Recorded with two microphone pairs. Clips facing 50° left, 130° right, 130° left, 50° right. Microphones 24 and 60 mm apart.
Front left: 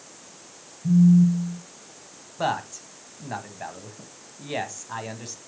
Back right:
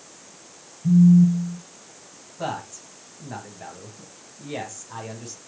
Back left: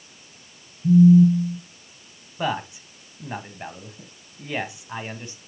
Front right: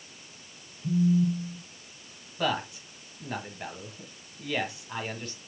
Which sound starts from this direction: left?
A man speaking, at 2.4 s.